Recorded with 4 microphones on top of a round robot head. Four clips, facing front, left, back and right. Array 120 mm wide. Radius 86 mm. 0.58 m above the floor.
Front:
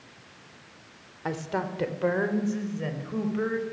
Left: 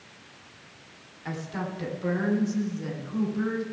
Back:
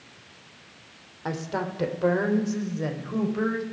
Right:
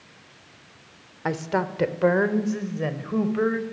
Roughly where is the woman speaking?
Right.